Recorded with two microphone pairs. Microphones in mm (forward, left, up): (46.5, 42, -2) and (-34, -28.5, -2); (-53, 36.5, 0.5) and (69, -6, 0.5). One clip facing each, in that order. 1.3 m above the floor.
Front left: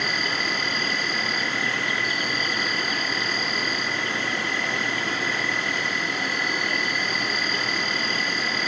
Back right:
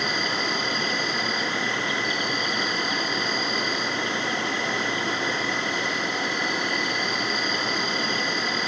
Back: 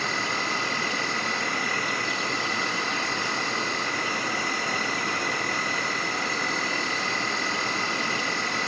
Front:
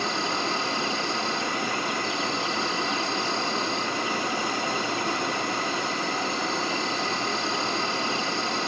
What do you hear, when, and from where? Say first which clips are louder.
0.0 s an insect: back right 1 dB, front 2 dB; 80° right, 0.8 m